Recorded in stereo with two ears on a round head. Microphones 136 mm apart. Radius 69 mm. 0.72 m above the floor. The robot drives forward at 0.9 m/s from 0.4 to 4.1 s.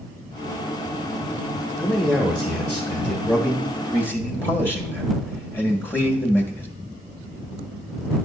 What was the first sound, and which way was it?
A man speaking, 5° left (ahead or behind).